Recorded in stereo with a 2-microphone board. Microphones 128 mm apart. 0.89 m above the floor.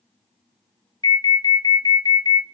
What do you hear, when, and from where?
1.0 s an alarm: 35° left (ahead or behind), 1.4 m